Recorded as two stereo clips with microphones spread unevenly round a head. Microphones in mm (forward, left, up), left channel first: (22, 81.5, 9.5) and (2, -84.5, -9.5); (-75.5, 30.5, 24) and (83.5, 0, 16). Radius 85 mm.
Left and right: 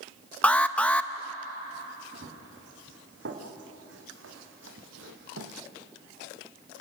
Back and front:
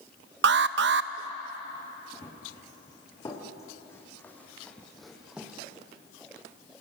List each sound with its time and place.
0.4 s an alarm: 5° left, 0.8 m
2.1 s running footsteps: 125° right, 5.5 m; by 5.5 s 95° right, 3 m